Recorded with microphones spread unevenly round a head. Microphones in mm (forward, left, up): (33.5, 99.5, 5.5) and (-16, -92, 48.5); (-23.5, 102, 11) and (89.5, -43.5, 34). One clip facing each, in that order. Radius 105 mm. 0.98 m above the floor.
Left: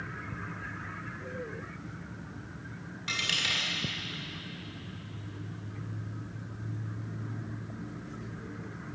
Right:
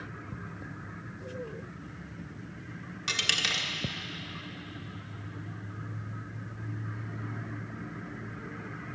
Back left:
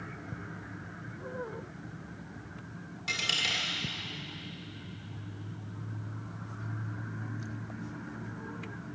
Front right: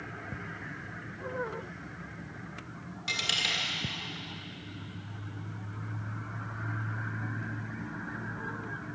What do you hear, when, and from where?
3.1 s a dropped coin: 140° right, 1.5 m